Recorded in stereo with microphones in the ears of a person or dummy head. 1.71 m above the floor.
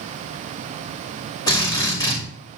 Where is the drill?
20° left (ahead or behind), 5 m.